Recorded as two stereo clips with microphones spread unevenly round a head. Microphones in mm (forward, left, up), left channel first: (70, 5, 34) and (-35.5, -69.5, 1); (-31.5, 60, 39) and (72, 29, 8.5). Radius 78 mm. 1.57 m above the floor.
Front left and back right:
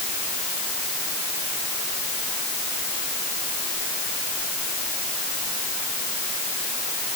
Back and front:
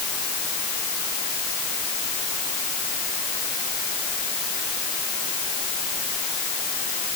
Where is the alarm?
No alarm in this recording.